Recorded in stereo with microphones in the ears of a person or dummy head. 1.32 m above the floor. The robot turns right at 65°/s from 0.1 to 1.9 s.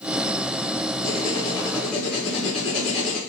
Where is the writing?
125° left, 1.0 m; by 3.2 s straight behind, 1.0 m.